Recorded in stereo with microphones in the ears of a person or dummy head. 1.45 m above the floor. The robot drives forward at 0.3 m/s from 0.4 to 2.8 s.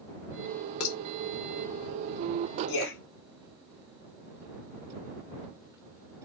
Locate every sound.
0.8 s dishes clattering: 55° left (ahead or behind), 1.1 m
2.7 s a man speaking: 70° left (ahead or behind), 1.1 m